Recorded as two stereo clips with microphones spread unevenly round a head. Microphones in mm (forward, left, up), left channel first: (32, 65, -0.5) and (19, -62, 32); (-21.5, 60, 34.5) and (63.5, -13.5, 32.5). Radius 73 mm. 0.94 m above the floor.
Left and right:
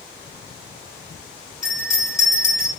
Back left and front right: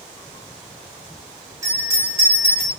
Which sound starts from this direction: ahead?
A bell, at 1.6 s.